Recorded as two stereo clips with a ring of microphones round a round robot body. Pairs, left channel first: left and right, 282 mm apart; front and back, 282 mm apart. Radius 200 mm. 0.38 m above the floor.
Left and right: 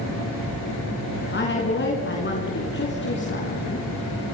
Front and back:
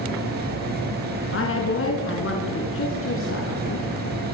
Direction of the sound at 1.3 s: 40° left.